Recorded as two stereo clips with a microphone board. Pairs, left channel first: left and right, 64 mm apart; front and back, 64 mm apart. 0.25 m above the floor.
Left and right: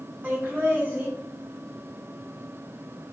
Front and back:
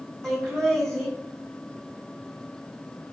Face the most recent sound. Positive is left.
turn(degrees=-75)